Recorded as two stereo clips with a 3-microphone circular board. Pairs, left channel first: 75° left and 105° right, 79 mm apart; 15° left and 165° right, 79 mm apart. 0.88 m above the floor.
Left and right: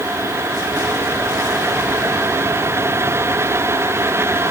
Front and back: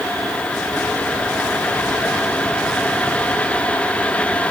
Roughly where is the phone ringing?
No phone ringing in this recording.